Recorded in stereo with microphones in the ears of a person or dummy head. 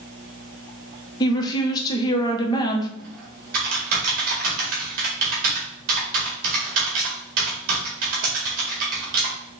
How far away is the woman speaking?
About 0.8 m.